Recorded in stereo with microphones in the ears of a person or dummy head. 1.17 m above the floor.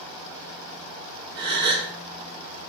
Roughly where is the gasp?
Right.